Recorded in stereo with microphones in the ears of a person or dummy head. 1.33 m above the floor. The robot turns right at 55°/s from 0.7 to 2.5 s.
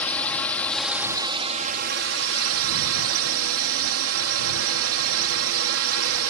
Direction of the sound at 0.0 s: 175° left.